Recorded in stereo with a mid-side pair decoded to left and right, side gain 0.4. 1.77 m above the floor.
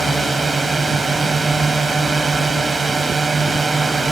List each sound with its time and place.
0.0 s a drone: 40° right